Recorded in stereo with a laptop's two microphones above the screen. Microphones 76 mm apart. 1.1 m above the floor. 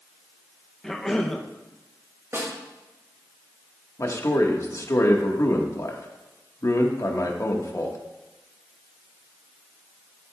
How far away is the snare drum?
About 3 m.